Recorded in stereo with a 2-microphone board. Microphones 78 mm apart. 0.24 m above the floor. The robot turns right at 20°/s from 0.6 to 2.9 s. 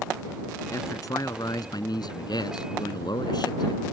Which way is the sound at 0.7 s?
50° left.